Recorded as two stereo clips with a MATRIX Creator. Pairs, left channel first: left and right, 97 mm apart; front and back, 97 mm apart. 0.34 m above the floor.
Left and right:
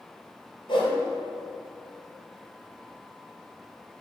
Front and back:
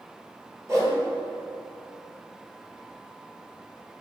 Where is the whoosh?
120° left, 2 m.